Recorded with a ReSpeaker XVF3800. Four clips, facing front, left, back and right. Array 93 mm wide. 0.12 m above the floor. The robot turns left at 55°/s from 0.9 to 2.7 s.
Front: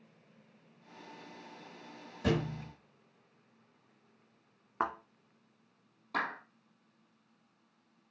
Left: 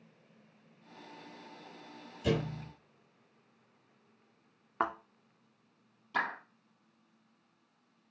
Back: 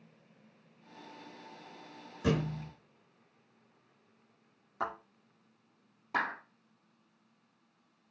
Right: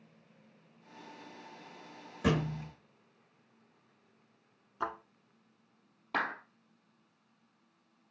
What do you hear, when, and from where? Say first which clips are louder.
2.2 s a thud: right 1 dB, back 1 dB; 100° right, 3 m; by 2.7 s 125° right, 3 m
4.8 s a thud: left 4 dB, front 2 dB; 55° left, 2 m
6.1 s a clap: even, back 2 dB; 110° right, 3 m